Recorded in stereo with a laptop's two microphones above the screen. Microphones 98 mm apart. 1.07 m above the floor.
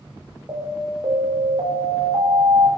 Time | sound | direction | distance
0.5 | an alarm | 45° right (ahead or behind) | 2.5 m